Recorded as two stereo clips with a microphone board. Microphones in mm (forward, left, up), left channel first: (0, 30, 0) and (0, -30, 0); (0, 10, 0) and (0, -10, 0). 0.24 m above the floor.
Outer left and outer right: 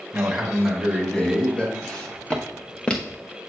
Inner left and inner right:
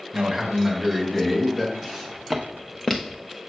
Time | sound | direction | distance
0.1 | a man speaking | 15° right (ahead or behind) | 1.8 m
1.8 | footsteps | 15° left (ahead or behind) | 1.9 m